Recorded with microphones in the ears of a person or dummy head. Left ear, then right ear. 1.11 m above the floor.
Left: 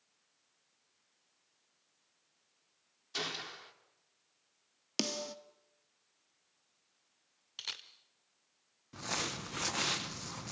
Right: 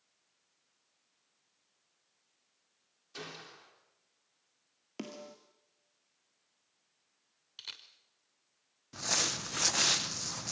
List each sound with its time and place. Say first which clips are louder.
3.1 s a gunshot: left 8 dB; 30° left (ahead or behind), 3 m
5.0 s a snare drum: left 9 dB; 75° left (ahead or behind), 1.7 m
7.6 s a camera shutter: left 4 dB; 20° left (ahead or behind), 1.4 m
8.9 s crumpling: right 5 dB; 20° right (ahead or behind), 0.7 m